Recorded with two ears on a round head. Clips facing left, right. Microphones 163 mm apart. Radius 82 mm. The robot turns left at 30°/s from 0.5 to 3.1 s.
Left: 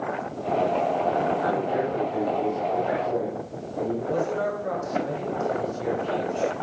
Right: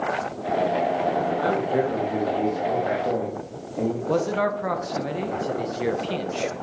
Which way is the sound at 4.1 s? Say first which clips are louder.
Right 4 dB; 75° right (ahead or behind).